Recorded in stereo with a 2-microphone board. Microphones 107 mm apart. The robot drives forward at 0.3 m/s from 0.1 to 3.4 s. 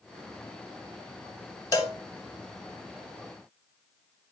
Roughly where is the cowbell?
Left.